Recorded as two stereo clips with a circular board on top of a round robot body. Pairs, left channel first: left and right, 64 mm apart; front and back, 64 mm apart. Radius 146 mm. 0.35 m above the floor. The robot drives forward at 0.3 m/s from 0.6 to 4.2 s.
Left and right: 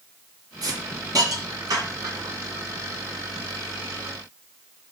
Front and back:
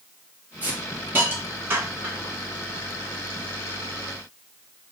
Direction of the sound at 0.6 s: 115° right.